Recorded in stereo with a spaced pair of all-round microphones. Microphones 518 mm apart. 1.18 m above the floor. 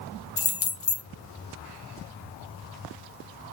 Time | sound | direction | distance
0.4 | keys jangling | 40° left (ahead or behind) | 0.5 m